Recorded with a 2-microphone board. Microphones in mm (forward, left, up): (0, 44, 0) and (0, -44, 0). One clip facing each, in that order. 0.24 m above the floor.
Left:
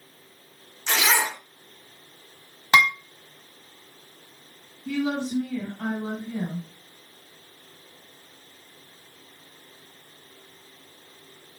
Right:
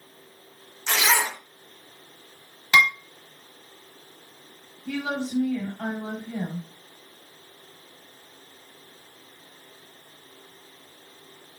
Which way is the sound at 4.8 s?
35° right (ahead or behind).